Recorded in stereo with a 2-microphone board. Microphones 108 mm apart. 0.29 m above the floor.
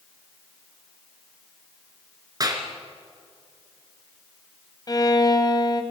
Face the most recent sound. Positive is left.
turn(degrees=35)  # may be behind; listen again after turning